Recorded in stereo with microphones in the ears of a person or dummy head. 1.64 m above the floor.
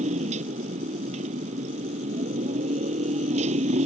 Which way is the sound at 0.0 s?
30° right (ahead or behind).